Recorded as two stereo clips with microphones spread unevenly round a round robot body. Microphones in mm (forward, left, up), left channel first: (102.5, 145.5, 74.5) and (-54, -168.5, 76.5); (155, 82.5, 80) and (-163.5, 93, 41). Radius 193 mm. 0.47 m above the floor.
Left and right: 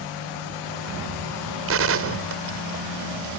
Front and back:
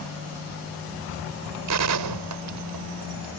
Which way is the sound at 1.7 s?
165° right.